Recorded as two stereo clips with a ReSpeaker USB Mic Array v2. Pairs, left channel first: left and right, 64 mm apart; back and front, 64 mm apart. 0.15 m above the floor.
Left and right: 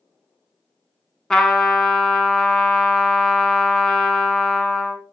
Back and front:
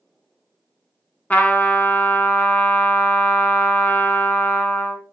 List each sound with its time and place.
1.3 s a trumpet: 160° left, 0.6 m